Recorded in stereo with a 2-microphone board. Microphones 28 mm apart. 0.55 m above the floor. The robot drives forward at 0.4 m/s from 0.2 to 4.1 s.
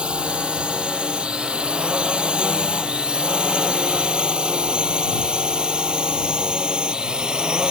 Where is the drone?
40° right (ahead or behind); by 7.7 s 30° right (ahead or behind).